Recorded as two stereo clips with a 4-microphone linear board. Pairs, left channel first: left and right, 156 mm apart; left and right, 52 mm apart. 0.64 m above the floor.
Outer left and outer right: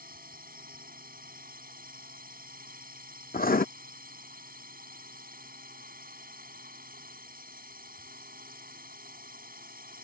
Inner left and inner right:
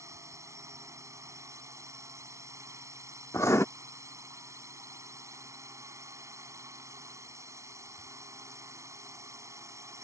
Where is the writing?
70° left (ahead or behind).